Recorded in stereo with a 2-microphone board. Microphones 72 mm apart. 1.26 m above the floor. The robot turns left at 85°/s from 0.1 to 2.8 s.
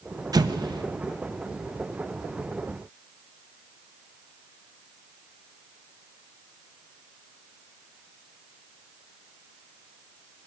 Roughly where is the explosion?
Right.